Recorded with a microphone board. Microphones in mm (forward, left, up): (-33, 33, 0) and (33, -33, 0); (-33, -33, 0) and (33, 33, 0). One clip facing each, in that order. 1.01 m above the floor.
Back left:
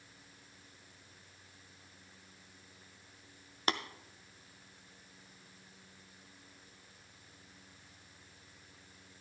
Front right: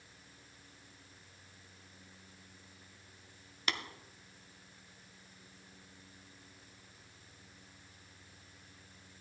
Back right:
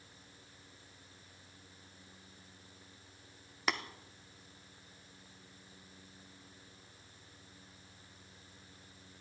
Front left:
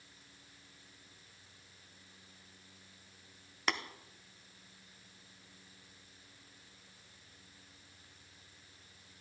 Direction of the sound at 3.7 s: 135° left.